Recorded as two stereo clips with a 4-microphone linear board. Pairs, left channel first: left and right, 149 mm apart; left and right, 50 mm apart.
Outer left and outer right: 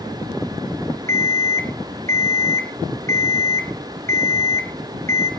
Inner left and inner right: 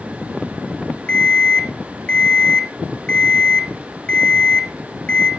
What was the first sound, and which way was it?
An alarm clock, 20° left (ahead or behind).